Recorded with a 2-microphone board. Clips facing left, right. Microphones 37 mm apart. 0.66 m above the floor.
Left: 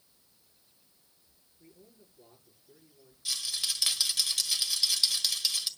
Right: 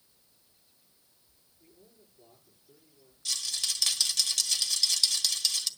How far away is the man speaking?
About 9.5 m.